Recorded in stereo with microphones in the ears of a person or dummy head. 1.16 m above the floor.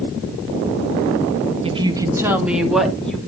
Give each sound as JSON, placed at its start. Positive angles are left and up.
{"t": 1.6, "sound": "a woman speaking", "side_deg": -25, "distance_m": 1.5}